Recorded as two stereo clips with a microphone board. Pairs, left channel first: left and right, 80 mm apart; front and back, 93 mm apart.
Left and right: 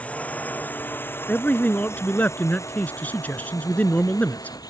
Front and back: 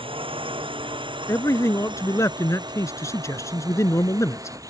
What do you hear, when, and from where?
0.0 s a drone: 165° left; by 4.7 s 125° left
1.3 s a man speaking: 30° left